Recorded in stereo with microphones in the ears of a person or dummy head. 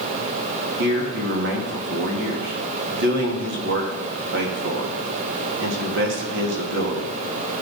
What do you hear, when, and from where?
0.8 s a man speaking: 65° right (ahead or behind), 2.5 m